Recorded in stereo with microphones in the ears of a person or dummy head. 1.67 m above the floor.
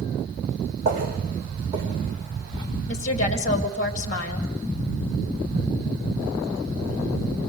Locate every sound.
0.8 s footsteps: 40° right (ahead or behind), 3.5 m; by 2.7 s 25° right (ahead or behind), 6 m
2.9 s a woman speaking: 40° left (ahead or behind), 2.5 m